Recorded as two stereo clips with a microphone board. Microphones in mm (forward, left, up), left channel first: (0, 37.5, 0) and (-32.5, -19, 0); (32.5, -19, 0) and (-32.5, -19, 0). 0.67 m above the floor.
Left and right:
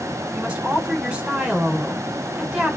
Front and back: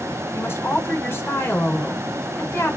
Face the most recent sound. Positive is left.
turn(degrees=-45)